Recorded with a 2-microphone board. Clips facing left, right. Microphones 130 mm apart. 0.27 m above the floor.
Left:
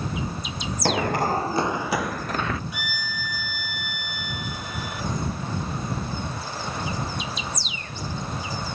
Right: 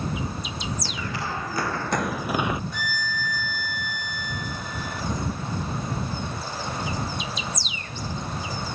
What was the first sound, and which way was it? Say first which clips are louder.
Running footsteps: left 9 dB; 65° left (ahead or behind).